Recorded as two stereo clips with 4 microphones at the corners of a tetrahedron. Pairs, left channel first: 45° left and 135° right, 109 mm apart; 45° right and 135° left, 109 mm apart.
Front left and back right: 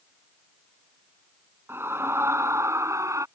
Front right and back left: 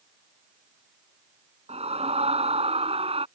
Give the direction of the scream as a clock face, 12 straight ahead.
7 o'clock.